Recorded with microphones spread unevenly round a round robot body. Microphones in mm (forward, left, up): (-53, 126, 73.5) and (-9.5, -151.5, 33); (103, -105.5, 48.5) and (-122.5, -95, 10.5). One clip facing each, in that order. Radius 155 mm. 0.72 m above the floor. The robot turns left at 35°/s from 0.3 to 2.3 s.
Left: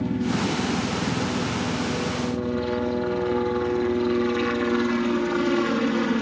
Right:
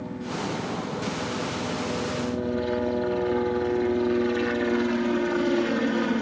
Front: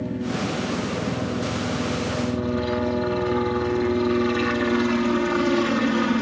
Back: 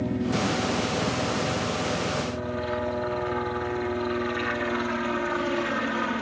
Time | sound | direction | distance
0.0 | a helicopter | 90° left | ?